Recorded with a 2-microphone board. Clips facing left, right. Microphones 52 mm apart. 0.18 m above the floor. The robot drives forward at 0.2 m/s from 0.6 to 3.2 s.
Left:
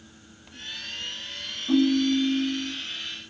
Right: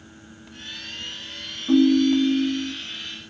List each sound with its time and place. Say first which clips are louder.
1.7 s a ringtone: right 5 dB; 15° right (ahead or behind), 0.6 m